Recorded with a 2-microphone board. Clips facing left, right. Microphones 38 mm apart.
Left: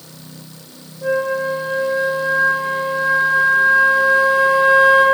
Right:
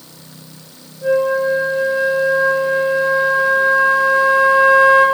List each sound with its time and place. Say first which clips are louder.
1.0 s a flute: right 4 dB; 15° left (ahead or behind), 5 m